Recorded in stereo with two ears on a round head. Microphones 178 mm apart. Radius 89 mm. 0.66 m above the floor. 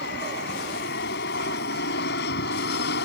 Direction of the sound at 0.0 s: 55° left (ahead or behind).